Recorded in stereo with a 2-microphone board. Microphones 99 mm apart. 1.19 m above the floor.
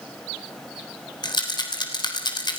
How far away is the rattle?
About 3 m.